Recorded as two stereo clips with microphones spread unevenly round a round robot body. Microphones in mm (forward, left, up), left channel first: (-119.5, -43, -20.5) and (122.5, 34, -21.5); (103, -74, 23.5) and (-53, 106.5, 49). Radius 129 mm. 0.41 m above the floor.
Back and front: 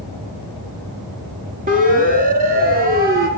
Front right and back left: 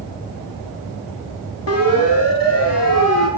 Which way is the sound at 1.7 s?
40° right.